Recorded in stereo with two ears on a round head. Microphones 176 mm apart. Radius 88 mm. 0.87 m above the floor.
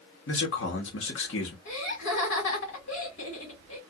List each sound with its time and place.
0.3 s a man speaking: 65° left (ahead or behind), 1.3 m
1.6 s laughter: 65° left (ahead or behind), 2 m